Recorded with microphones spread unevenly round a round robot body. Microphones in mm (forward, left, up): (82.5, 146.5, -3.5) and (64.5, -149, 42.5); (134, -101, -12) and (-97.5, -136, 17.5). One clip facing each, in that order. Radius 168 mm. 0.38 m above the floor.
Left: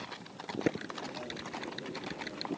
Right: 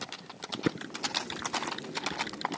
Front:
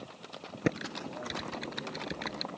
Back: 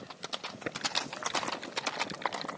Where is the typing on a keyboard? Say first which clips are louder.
Right 2 dB, front 9 dB; 20° right.